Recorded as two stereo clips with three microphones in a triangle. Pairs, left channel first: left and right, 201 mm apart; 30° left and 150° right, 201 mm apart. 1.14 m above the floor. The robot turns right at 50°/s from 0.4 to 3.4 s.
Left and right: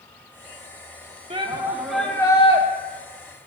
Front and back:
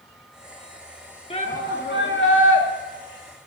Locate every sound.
1.3 s a shout: 30° right, 2 m; by 2.6 s 35° left, 2 m